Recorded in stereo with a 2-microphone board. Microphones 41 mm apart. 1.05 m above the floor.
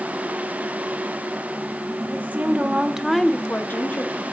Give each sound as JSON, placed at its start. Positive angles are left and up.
{"t": 2.1, "sound": "a woman speaking", "side_deg": -50, "distance_m": 2.0}